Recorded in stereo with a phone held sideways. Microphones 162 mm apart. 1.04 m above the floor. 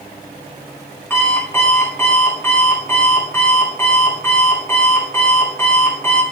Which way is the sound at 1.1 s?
15° left (ahead or behind).